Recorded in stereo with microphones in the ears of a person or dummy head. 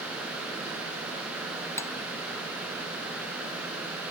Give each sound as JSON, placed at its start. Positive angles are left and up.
{"t": 1.8, "sound": "cutlery clinking", "side_deg": 15}